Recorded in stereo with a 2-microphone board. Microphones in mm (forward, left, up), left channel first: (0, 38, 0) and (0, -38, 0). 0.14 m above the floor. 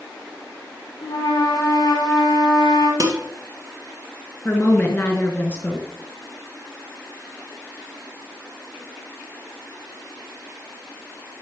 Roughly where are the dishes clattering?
Right.